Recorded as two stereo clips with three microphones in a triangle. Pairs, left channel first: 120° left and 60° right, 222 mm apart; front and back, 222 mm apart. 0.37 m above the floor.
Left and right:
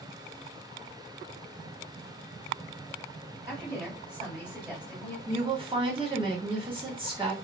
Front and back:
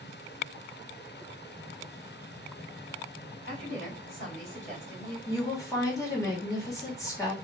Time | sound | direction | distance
3.5 | a woman speaking | 5° left | 2 m
5.3 | a woman speaking | 50° right | 1.1 m